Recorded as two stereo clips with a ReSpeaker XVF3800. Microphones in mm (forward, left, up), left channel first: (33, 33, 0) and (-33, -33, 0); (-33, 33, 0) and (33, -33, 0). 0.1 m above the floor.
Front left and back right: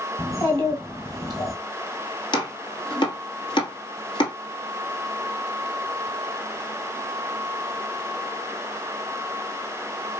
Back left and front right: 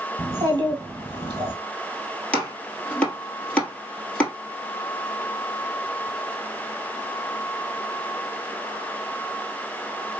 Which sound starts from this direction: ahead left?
Chopping, at 2.3 s.